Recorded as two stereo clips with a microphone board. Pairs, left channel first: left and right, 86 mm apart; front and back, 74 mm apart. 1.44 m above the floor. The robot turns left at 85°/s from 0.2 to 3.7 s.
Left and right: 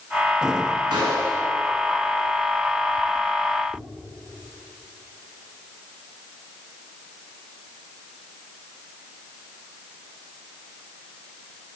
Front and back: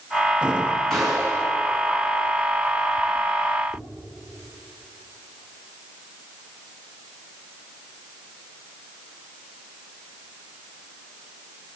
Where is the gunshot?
85° right, 5.5 m; by 1.4 s 130° right, 5.5 m.